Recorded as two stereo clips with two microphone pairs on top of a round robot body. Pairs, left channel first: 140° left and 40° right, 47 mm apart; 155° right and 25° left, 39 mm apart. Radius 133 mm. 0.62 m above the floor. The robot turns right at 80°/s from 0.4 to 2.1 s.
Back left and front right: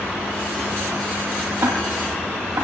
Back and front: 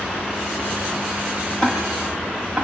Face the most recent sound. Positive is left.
turn(degrees=-45)